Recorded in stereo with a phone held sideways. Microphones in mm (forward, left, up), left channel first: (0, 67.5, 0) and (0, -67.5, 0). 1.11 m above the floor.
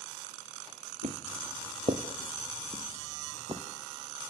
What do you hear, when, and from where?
1.0 s footsteps: 55° right (ahead or behind), 2 m; by 3.6 s 40° right (ahead or behind), 3 m